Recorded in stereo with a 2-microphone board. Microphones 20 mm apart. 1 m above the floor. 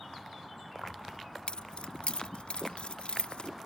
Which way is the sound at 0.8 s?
65° left (ahead or behind).